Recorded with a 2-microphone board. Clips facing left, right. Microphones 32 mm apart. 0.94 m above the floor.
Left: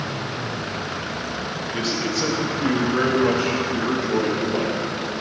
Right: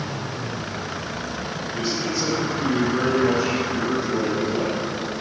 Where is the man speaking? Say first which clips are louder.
Left 1 dB; 55° left (ahead or behind), 1.2 m.